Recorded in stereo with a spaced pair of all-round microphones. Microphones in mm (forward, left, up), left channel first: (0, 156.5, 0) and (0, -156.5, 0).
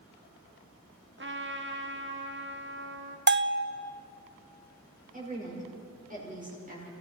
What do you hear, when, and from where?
1.2 s a trumpet: 40° right (ahead or behind), 1.3 m
3.3 s a bell: 40° right (ahead or behind), 0.6 m
5.1 s a woman speaking: 25° right (ahead or behind), 6.5 m